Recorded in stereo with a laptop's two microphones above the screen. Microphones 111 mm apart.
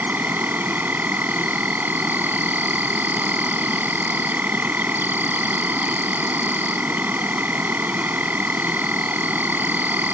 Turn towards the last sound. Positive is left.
turn(degrees=-15)  # may be behind; listen again after turning